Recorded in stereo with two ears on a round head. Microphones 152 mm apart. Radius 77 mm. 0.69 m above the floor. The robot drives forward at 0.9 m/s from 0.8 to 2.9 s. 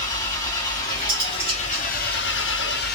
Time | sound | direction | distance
0.0 | an engine running | 20° left (ahead or behind) | 1.7 m
1.1 | cutlery clinking | 25° right (ahead or behind) | 3 m